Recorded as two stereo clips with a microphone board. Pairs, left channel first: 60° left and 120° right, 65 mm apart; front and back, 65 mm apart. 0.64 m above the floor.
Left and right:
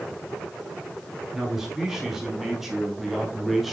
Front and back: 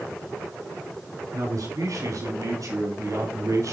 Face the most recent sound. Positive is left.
turn(degrees=155)